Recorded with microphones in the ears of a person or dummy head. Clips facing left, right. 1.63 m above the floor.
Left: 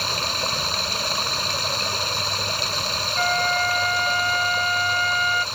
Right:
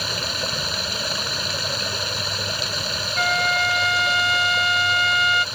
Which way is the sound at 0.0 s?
10° right (ahead or behind).